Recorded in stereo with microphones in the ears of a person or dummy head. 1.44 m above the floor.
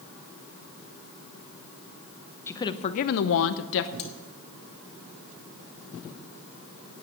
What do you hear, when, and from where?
2.5 s a woman speaking: 15° left (ahead or behind), 0.8 m; by 3.9 s 65° left (ahead or behind), 1.0 m
4.0 s cutlery clinking: 30° left (ahead or behind), 2.5 m